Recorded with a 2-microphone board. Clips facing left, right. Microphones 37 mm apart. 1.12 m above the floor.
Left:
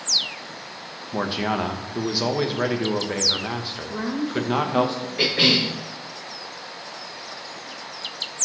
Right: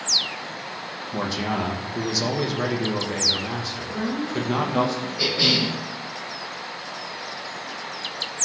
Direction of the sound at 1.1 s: 25° left (ahead or behind).